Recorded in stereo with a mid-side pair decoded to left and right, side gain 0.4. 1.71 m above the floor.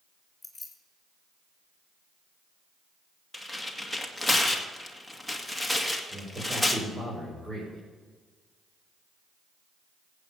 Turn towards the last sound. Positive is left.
turn(degrees=-30)